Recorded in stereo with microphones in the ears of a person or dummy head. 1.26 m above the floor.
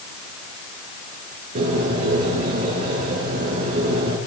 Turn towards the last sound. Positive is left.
turn(degrees=-40)  # may be behind; listen again after turning